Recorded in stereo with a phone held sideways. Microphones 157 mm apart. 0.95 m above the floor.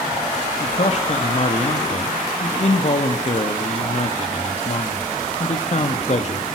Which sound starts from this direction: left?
A man speaking, at 0.6 s.